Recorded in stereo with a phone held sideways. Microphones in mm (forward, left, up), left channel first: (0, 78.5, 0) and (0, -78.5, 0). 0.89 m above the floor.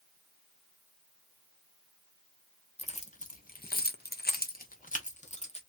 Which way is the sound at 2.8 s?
45° left (ahead or behind).